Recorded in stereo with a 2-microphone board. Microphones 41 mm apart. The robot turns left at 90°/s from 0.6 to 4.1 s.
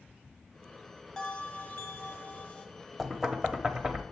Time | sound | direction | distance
1.2 | a bell | 160° left | 1.3 m
3.0 | knocking | centre (ahead or behind) | 0.9 m